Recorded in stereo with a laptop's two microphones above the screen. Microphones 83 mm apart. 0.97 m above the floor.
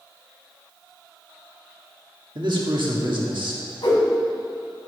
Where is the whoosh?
70° left (ahead or behind), 1.9 m.